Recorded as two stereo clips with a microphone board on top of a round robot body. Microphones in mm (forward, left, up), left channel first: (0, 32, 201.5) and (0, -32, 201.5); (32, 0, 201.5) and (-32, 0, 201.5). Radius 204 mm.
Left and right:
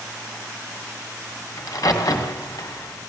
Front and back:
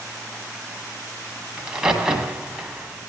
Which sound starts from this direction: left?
A crack, at 1.6 s.